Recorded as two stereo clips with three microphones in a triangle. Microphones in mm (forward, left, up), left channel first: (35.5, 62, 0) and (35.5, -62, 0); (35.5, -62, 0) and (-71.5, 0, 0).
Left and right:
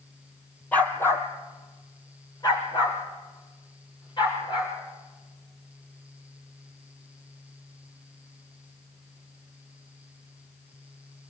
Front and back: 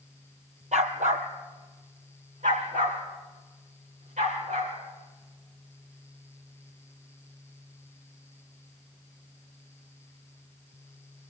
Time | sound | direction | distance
0.7 | a dog barking | 170° left | 1.7 m